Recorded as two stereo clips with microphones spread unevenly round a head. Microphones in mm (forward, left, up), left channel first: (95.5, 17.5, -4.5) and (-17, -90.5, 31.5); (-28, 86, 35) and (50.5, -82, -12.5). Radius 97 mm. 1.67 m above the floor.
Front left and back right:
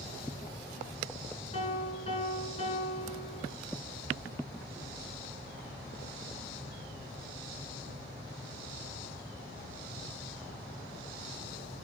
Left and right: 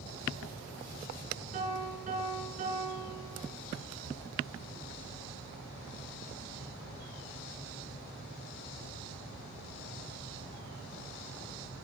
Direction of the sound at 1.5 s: 10° right.